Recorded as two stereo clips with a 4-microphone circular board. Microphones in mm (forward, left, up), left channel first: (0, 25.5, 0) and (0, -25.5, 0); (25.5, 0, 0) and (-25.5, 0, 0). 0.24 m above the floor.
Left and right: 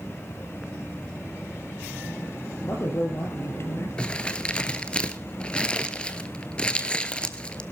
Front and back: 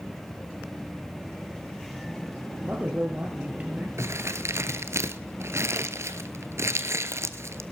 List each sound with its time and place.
2.6 s a man speaking: 120° left, 4.5 m
4.0 s crumpling: 160° left, 1.1 m